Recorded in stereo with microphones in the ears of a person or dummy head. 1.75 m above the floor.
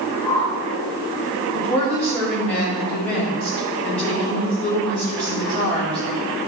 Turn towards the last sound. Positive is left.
turn(degrees=10)  # may be behind; listen again after turning